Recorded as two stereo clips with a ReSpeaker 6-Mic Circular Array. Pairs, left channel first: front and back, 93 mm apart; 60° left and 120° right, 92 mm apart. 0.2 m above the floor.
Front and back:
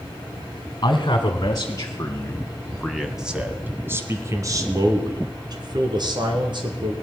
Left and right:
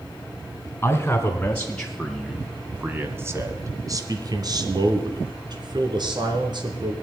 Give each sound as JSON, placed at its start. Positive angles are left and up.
{"t": 0.8, "sound": "a man speaking", "azimuth_deg": 0, "distance_m": 2.0}